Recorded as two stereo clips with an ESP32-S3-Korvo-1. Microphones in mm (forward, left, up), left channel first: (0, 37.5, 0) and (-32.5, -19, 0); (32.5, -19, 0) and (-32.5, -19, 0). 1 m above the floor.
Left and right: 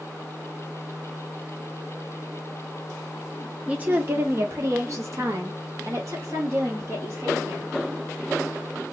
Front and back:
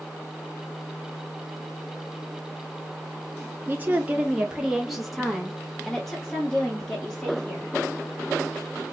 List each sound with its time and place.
3.7 s a woman speaking: 170° right, 0.7 m; by 7.8 s 80° right, 3 m